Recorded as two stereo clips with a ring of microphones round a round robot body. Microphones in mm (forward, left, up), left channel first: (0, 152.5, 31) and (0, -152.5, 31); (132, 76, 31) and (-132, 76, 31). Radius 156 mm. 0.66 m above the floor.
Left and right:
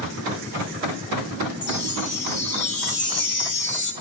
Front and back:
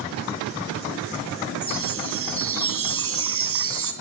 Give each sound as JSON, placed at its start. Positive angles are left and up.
{"t": 1.6, "sound": "a chime", "azimuth_deg": 145, "distance_m": 3.5}